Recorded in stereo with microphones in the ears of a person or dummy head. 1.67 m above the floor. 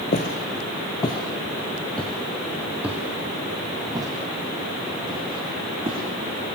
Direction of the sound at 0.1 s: 40° left (ahead or behind).